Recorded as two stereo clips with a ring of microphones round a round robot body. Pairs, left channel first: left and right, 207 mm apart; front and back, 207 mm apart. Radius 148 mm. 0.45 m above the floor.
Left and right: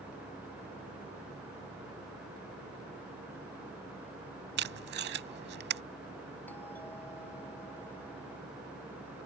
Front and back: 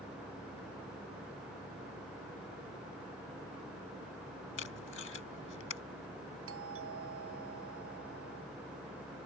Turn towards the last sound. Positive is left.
turn(degrees=175)